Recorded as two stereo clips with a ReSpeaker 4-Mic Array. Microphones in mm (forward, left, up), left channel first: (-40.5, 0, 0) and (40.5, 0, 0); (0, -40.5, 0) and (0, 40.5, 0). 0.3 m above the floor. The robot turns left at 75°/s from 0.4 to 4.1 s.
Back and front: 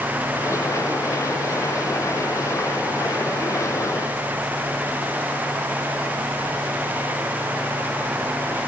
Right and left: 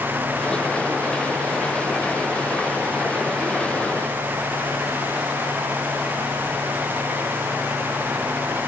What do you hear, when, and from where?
Only background noise.